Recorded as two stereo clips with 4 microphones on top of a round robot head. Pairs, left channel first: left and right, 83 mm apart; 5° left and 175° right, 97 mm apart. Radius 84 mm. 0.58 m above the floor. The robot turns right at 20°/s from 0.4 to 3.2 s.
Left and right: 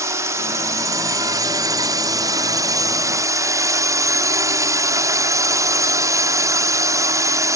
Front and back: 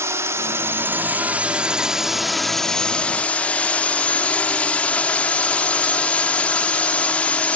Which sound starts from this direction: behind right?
A drone, at 0.0 s.